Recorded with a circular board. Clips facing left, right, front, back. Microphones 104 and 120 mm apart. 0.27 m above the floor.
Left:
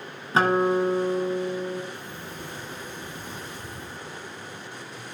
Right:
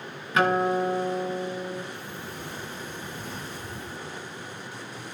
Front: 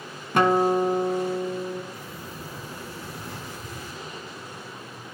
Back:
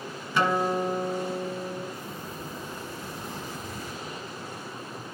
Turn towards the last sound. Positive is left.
turn(degrees=20)